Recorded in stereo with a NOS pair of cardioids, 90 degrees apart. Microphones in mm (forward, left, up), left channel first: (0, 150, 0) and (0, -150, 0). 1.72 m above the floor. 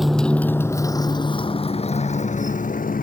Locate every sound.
0.0 s a motorcycle: straight ahead; by 3.0 s 30° left